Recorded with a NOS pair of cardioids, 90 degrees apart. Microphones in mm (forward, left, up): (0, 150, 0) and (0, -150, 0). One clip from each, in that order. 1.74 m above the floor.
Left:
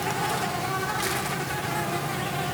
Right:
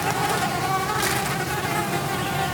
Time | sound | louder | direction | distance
0.0 | an insect | right 4 dB | 30° right | 1.3 m